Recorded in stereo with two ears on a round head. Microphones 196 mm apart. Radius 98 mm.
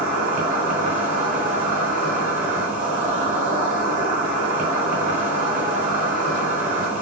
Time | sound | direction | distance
0.0 | an insect | 40° right (ahead or behind) | 1.8 m